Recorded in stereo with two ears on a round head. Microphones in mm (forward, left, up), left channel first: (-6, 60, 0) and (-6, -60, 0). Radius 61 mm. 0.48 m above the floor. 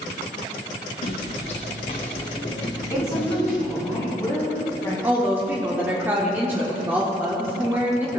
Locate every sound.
1.0 s footsteps: 55° left (ahead or behind), 2.5 m; by 3.9 s centre (ahead or behind), 2 m
2.9 s a woman speaking: 25° left (ahead or behind), 4 m
5.0 s a woman speaking: 15° right (ahead or behind), 1.3 m